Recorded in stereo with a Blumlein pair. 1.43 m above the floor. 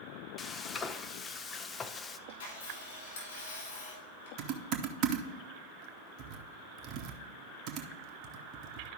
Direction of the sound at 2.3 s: 65° left.